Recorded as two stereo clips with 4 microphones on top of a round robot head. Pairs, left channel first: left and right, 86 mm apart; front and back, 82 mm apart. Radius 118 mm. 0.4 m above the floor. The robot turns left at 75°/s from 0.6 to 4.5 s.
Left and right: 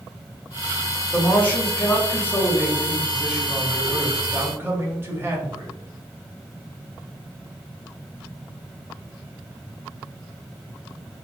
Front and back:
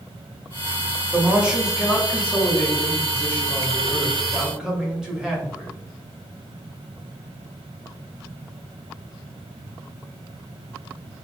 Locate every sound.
1.1 s a man speaking: 145° left, 1.1 m; by 5.7 s 110° right, 1.1 m